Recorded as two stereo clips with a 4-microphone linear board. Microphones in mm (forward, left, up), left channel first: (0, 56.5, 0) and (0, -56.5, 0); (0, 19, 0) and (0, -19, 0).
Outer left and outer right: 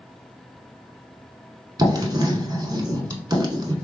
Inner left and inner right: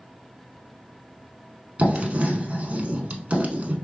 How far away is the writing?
About 0.6 m.